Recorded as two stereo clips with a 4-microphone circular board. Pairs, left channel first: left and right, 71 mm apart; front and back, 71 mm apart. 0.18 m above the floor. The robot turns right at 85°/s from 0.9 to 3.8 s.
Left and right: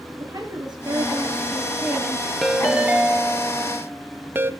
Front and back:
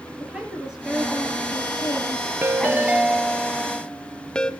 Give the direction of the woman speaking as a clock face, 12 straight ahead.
3 o'clock.